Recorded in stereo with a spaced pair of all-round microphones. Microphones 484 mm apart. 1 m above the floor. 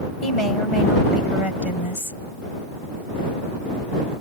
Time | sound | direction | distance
0.2 | a woman speaking | 85° left | ?